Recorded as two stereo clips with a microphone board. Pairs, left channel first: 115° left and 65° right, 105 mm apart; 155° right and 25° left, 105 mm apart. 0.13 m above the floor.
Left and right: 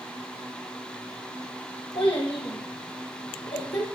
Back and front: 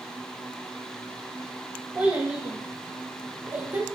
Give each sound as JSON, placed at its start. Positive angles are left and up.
{"t": 1.9, "sound": "a child speaking", "azimuth_deg": 100, "distance_m": 3.5}